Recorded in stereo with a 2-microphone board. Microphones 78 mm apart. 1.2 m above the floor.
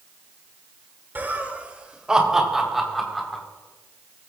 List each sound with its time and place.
1.1 s laughter: 25° right (ahead or behind), 3 m; by 3.4 s 5° left (ahead or behind), 5 m